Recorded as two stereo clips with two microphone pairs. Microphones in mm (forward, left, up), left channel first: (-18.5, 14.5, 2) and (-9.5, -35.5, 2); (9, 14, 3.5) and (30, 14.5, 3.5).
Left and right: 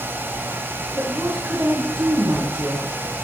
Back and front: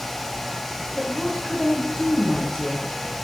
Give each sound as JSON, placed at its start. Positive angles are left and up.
{"t": 0.9, "sound": "a woman speaking", "azimuth_deg": -115, "distance_m": 6.0}